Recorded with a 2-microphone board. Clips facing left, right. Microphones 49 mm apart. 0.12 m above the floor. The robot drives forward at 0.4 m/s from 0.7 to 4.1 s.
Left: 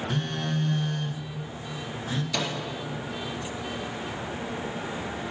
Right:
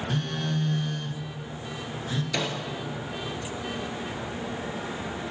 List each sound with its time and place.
0.1 s a phone buzzing: 10° left (ahead or behind), 1.3 m; by 2.2 s 5° left (ahead or behind), 1.7 m
2.3 s a microwave: 20° right (ahead or behind), 2 m